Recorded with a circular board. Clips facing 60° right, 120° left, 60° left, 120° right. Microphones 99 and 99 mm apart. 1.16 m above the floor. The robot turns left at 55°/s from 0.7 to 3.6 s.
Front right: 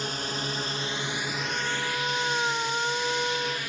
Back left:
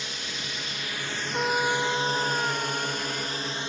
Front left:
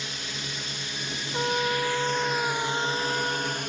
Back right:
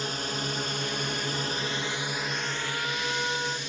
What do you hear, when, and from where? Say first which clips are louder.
0.0 s a drone: front right 6 dB, back right 6 dB; 90° right; by 3.7 s 60° left
1.3 s a trumpet: back left 11 dB, front left 6 dB; 85° left; by 3.6 s 40° right